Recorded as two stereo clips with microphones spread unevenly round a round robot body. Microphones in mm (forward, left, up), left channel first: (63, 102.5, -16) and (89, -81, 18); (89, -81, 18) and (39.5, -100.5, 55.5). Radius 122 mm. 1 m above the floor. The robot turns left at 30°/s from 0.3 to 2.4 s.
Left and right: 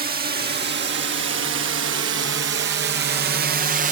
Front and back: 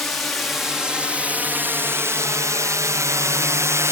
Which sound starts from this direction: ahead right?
A drone, at 0.0 s.